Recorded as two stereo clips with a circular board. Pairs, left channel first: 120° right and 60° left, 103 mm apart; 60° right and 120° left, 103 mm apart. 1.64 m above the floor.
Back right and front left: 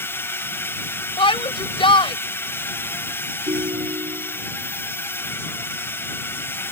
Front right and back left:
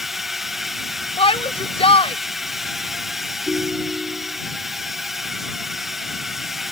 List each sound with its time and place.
0.0 s a drone: 155° right
1.2 s a shout: 85° right
3.5 s a ringtone: 40° left